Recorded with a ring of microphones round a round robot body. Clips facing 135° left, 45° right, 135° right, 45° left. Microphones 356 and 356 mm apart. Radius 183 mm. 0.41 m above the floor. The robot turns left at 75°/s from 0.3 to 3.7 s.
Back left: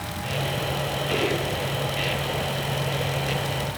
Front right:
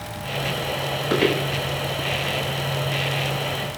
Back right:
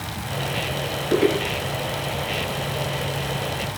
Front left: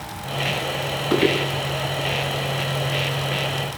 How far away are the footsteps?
About 9 m.